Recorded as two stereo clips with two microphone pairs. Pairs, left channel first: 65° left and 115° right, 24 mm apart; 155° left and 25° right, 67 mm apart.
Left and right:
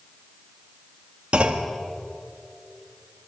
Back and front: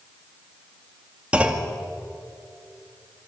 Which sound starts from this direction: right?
A clunk, at 1.3 s.